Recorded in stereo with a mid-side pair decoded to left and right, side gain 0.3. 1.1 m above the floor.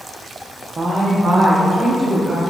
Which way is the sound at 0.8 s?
55° right.